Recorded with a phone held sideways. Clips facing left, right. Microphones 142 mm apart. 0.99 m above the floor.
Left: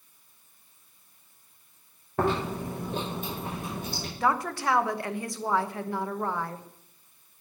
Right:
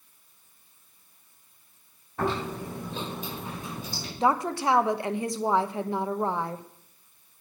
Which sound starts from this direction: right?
A woman speaking, at 4.2 s.